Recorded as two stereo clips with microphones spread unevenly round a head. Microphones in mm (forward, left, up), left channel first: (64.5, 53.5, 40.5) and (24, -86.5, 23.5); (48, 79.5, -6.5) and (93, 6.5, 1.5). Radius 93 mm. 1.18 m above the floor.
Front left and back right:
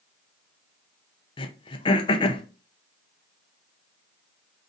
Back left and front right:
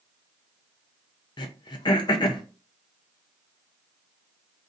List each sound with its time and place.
1.4 s throat clearing: 135° left, 0.5 m